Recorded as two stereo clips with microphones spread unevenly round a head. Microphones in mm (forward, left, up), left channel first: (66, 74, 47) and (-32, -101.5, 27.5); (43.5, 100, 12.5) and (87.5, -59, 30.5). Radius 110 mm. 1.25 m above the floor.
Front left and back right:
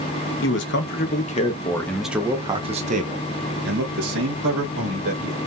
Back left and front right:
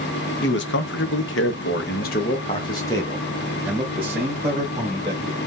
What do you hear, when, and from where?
0.4 s a man speaking: 95° left, 1.0 m; by 5.4 s 150° right, 1.9 m